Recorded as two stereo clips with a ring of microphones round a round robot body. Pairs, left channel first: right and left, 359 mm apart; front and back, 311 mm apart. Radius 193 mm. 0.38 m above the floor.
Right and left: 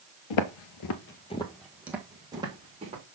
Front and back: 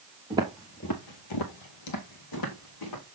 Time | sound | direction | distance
0.3 | footsteps | 105° right | 0.8 m